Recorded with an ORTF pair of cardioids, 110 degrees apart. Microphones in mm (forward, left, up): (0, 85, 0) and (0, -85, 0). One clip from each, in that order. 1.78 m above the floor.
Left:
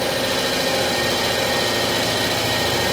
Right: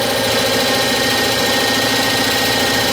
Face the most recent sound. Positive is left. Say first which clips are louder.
# right 5 dB
turn(degrees=-50)